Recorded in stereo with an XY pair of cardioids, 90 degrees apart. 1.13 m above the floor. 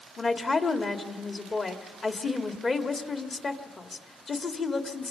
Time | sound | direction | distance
0.2 | a woman speaking | 40° left | 2 m